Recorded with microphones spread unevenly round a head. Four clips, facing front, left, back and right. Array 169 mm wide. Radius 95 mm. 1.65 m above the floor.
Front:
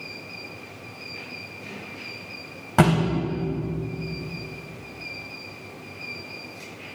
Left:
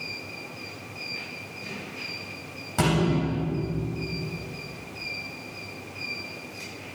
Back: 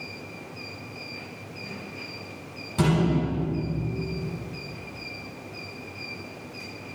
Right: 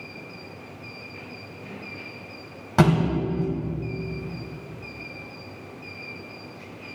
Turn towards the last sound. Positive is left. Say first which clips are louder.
# right 4 dB, front 3 dB
turn(degrees=-25)